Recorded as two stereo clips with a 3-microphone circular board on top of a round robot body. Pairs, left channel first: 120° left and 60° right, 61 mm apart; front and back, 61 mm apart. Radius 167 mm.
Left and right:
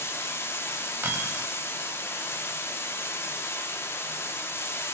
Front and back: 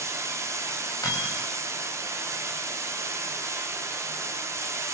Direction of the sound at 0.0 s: 160° left.